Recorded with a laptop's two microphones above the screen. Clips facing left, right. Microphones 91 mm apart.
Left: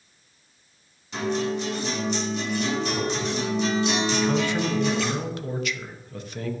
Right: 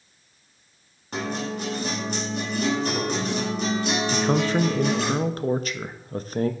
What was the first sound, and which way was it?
A guitar, 50° right (ahead or behind).